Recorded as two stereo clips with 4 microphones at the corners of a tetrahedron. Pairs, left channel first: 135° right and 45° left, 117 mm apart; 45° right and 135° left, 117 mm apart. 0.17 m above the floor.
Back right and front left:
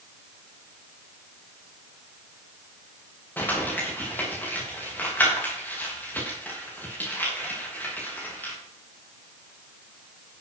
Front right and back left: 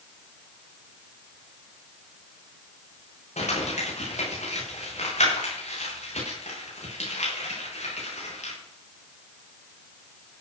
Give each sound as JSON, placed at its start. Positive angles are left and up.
{"t": 3.4, "sound": "crumpling", "azimuth_deg": -60, "distance_m": 8.5}